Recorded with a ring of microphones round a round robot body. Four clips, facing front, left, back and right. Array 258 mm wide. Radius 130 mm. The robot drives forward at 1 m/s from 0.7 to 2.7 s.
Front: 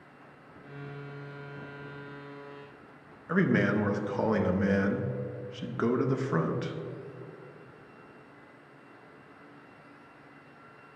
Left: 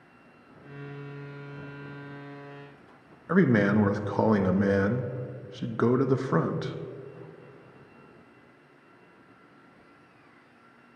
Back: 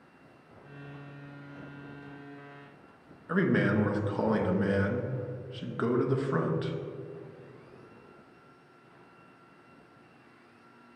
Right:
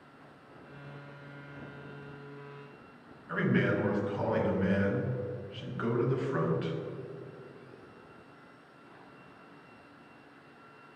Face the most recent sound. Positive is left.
turn(degrees=85)